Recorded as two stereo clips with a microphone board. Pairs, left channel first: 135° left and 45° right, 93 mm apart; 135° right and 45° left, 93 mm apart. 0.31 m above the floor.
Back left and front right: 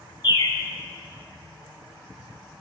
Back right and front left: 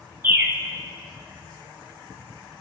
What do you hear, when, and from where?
0.2 s a bird: 110° left, 0.5 m